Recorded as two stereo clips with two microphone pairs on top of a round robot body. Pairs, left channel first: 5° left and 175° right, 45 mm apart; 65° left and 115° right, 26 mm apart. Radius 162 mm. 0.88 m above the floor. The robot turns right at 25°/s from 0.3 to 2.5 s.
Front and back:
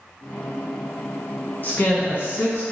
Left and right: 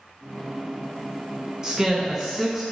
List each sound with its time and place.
1.6 s a woman speaking: 50° right, 0.5 m; by 2.6 s 25° right, 0.5 m